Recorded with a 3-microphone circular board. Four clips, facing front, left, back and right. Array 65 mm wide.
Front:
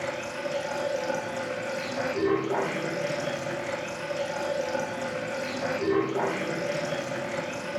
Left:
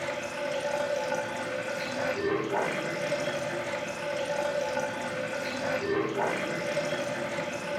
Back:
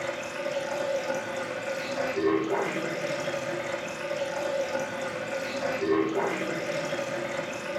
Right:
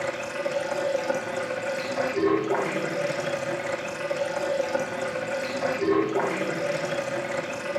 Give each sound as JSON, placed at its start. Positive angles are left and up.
{"t": 0.0, "sound": "running water", "azimuth_deg": -80, "distance_m": 9.0}